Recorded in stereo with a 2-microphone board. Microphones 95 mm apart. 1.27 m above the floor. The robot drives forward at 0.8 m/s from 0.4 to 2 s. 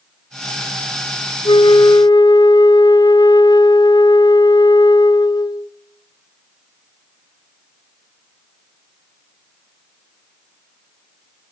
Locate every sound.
1.4 s a flute: 65° left (ahead or behind), 0.7 m; by 5.7 s 45° left (ahead or behind), 0.9 m